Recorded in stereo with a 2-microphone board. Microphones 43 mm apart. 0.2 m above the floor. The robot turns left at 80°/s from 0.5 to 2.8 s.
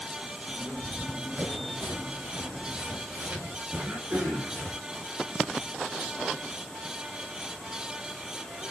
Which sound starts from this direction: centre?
Running footsteps, at 0.8 s.